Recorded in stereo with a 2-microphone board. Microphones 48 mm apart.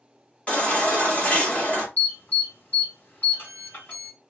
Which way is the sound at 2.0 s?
40° left (ahead or behind).